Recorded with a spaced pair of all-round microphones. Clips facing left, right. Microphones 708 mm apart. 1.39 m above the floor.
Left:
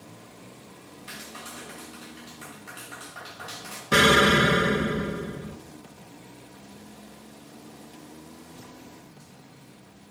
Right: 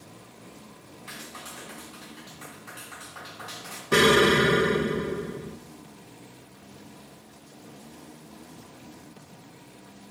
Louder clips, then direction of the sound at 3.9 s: Right 2 dB; 20° left (ahead or behind).